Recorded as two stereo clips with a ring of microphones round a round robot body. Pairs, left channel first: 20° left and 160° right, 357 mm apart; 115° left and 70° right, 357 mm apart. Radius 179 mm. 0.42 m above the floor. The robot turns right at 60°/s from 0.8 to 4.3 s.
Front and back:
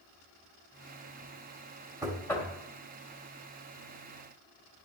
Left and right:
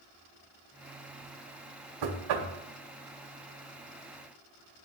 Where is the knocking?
80° right, 1.3 m; by 2.5 s 50° right, 1.3 m.